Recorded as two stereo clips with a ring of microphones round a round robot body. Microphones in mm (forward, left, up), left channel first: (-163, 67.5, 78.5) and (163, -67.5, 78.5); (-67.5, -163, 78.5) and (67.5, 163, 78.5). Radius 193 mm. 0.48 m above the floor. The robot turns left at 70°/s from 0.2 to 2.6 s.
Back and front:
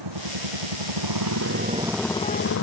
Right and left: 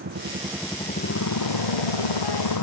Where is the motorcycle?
5° left; by 2.6 s 150° right.